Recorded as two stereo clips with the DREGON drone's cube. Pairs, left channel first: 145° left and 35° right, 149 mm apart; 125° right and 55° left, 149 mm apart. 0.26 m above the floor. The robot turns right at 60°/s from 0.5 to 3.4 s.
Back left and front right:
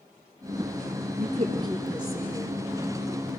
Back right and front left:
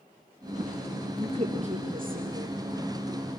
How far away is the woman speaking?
About 5 m.